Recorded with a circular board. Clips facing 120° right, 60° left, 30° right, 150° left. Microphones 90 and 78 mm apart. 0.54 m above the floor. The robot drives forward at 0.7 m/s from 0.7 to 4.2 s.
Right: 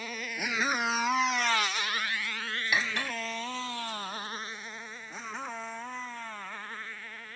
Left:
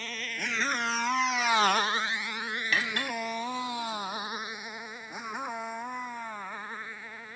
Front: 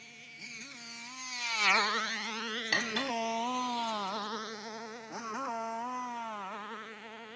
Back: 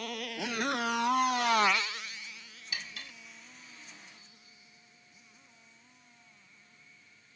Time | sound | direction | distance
0.0 | a motorcycle | 160° left | ?
2.7 | cutlery clinking | 45° right | ?